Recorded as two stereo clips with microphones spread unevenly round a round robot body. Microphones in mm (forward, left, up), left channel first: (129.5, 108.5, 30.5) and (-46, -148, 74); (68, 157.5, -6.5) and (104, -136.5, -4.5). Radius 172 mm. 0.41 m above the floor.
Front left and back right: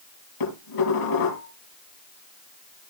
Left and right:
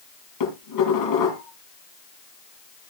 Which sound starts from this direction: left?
Dishes clattering, at 0.4 s.